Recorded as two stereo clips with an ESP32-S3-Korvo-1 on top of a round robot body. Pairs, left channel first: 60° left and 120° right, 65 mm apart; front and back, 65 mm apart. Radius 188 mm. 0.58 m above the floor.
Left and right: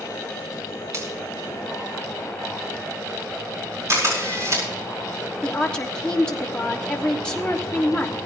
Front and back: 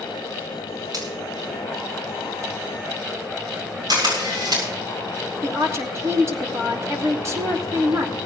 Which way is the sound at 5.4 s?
135° left.